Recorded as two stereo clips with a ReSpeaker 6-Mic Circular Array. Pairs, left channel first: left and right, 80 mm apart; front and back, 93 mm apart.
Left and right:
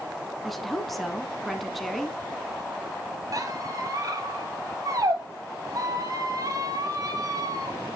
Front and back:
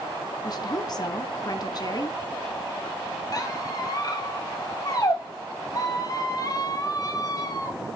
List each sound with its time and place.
0.4 s a woman speaking: 5° left, 1.5 m
3.3 s a squeak: 45° right, 1.5 m